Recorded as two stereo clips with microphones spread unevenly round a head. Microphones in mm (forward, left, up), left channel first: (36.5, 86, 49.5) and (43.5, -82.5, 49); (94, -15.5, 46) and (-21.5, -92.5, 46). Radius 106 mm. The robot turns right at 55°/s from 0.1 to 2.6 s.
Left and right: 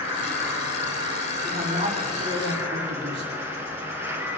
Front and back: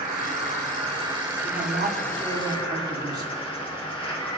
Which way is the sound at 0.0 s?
150° right.